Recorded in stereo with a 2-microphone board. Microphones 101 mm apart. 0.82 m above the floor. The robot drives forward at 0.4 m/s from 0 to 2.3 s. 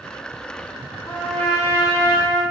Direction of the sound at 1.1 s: 20° left (ahead or behind).